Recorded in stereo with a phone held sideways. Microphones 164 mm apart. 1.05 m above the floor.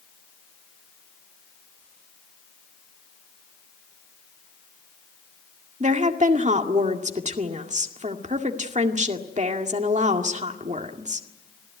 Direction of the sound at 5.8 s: 45° right (ahead or behind).